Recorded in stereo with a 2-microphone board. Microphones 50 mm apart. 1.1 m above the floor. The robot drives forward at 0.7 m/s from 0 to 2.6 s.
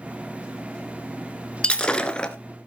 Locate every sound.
1.6 s breaking glass: 20° left (ahead or behind), 1.6 m; by 2.4 s 15° left (ahead or behind), 2.0 m